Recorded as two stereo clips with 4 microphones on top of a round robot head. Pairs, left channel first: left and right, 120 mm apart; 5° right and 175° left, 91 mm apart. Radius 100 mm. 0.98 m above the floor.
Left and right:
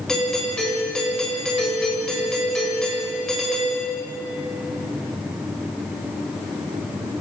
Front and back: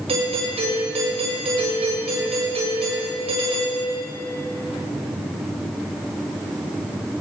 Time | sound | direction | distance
0.1 | a doorbell | 175° left | 8 m